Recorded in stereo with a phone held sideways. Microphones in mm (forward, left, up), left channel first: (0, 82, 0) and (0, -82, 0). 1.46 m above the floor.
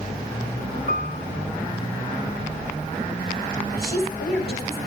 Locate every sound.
0.9 s a piano: 55° left (ahead or behind), 0.8 m
3.7 s a woman speaking: 80° left, 9 m